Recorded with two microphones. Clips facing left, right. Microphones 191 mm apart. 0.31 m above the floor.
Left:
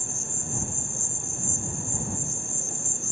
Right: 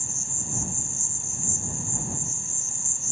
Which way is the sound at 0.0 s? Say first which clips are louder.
Left 2 dB; 55° left (ahead or behind).